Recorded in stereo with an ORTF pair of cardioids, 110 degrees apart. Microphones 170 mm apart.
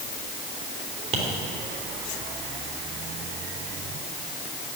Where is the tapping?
45° right, 3 m.